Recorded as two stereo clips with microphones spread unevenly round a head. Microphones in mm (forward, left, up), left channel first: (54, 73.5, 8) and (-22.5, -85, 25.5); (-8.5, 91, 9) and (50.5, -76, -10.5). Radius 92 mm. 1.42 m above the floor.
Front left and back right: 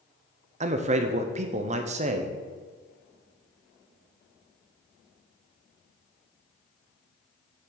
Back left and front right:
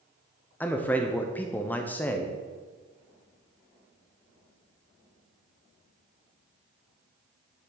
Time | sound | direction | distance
0.6 | a man speaking | 165° right | 0.6 m